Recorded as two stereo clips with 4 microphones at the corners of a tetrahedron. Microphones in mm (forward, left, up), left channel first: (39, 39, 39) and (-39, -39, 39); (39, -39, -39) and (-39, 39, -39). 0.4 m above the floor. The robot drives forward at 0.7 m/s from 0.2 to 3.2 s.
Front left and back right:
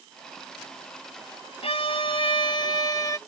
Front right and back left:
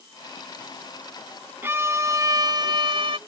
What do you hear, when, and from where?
1.6 s a violin: 65° left; by 3.2 s 100° left